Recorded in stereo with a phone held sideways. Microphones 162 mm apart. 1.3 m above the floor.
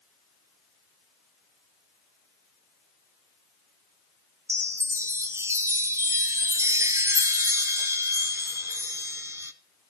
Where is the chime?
15° right (ahead or behind), 0.9 m.